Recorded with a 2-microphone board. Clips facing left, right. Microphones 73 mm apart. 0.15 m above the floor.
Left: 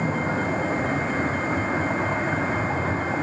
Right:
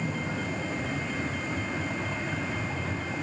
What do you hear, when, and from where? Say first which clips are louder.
0.0 s a vehicle: left 8 dB; 40° left (ahead or behind)